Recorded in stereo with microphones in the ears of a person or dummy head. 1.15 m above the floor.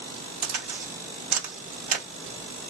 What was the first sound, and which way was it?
A crack, 45° right (ahead or behind).